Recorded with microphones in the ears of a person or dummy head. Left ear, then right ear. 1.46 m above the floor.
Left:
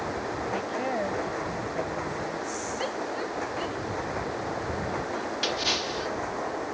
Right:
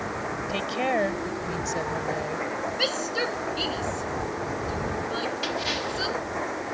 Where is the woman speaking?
85° right.